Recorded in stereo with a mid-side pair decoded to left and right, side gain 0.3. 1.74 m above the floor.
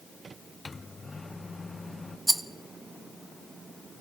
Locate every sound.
0.7 s a microwave: 40° left, 1.0 m
2.3 s a rattle: 15° right, 0.9 m